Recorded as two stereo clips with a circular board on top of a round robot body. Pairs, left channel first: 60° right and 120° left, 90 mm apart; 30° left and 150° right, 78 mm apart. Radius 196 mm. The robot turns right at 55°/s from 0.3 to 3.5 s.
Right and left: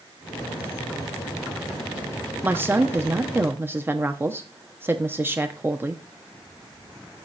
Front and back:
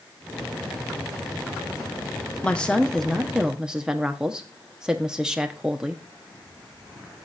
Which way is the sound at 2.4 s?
80° left.